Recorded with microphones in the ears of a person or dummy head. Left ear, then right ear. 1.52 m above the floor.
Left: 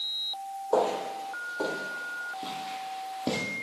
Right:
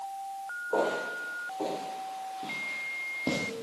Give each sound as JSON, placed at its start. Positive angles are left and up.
{"t": 0.7, "sound": "footsteps", "side_deg": 40, "distance_m": 4.0}